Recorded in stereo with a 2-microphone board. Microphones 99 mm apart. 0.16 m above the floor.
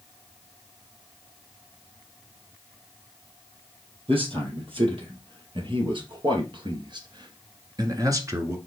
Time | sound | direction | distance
4.1 | a man speaking | 75° right (ahead or behind) | 3.5 m